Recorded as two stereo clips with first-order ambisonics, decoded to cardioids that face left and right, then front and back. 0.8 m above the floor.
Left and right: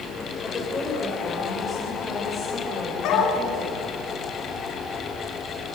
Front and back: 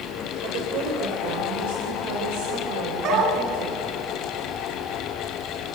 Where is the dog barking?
130° left, 3.5 m.